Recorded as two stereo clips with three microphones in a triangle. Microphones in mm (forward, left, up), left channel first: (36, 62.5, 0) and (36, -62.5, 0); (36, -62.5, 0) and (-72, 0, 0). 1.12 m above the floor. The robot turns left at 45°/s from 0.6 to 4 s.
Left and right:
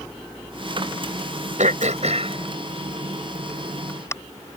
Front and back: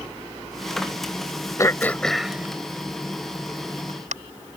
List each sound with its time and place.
1.6 s throat clearing: 95° right; by 4.2 s 155° left